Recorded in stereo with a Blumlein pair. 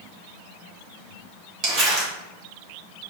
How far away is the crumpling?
About 1.6 m.